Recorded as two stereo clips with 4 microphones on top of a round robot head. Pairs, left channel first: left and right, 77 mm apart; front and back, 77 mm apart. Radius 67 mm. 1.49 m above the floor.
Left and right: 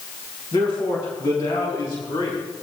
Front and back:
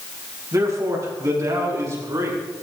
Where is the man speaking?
140° left, 3.5 m.